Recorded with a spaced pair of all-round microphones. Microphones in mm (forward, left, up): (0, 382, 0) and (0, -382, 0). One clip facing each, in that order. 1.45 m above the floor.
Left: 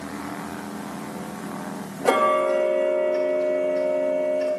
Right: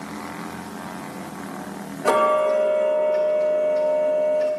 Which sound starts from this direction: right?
Ticking, at 2.0 s.